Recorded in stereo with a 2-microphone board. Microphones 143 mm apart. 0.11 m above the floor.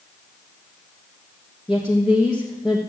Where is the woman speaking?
5° right (ahead or behind), 3 m.